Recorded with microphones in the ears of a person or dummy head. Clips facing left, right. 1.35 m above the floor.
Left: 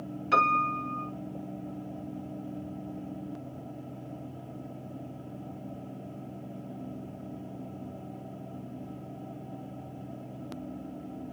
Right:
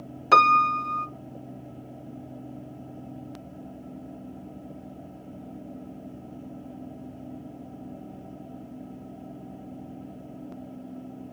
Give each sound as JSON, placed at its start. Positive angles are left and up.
{"t": 0.3, "sound": "a piano", "side_deg": -65, "distance_m": 0.7}